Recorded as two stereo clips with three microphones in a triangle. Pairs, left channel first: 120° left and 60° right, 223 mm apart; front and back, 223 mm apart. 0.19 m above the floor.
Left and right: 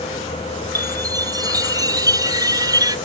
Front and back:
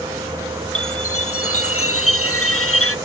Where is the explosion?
I don't hear an explosion.